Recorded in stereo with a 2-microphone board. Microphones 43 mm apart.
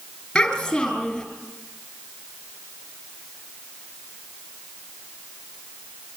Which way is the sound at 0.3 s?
10° left (ahead or behind).